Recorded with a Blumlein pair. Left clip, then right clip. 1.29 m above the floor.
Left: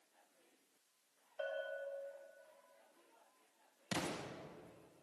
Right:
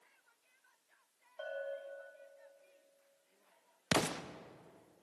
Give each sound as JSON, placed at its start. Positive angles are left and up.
{"t": 1.4, "sound": "a bell", "azimuth_deg": -10, "distance_m": 3.5}
{"t": 3.9, "sound": "an explosion", "azimuth_deg": -30, "distance_m": 0.6}